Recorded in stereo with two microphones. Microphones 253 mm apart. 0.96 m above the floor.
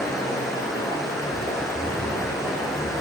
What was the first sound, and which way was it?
Running water, centre (ahead or behind).